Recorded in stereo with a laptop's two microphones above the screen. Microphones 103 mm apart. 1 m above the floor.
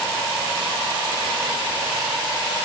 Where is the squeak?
I don't hear a squeak.